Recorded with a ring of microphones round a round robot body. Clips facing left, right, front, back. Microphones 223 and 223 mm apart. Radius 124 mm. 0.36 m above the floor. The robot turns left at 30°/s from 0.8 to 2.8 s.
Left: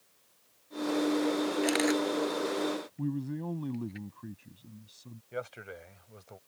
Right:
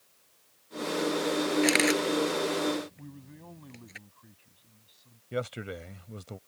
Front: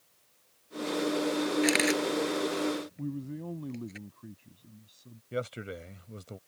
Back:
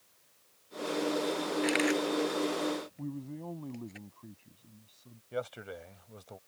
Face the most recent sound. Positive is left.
turn(degrees=-55)